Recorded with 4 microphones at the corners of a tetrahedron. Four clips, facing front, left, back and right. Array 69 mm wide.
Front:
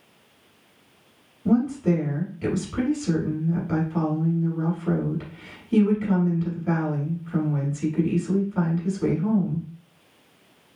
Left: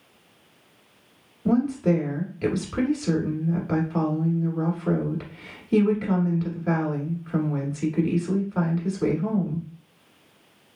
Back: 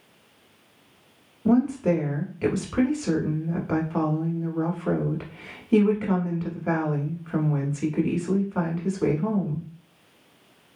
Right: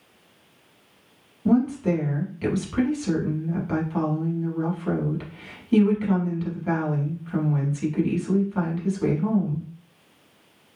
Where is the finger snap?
No finger snap in this recording.